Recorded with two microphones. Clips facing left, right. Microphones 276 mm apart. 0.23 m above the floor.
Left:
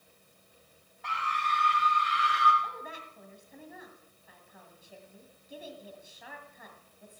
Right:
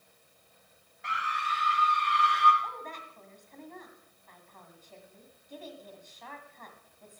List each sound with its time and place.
1.0 s a scream: 20° right (ahead or behind), 1.0 m; by 2.5 s 10° left (ahead or behind), 2.5 m
2.6 s a woman speaking: 10° left (ahead or behind), 1.9 m